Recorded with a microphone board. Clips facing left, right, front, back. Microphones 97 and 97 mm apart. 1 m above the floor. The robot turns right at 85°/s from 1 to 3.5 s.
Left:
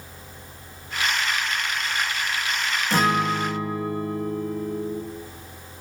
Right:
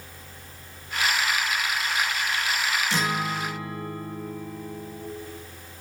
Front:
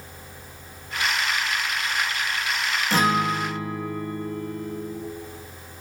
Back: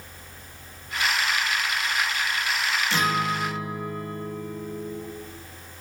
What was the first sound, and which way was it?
A guitar, 45° left.